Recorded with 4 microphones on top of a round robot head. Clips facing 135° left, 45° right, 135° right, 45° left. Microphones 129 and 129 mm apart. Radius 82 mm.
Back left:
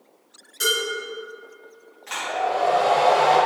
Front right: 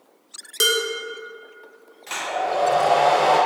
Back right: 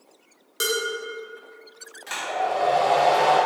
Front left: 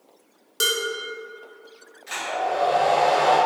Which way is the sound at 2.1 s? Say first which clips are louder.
Even, even; 105° right.